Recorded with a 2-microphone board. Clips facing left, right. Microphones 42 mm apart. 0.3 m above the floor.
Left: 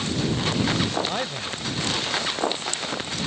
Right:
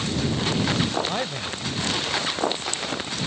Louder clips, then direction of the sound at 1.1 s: Right 1 dB; centre (ahead or behind).